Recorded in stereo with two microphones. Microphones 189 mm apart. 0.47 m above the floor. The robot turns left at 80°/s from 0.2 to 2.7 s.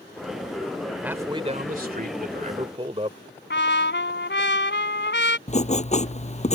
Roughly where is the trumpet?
Left.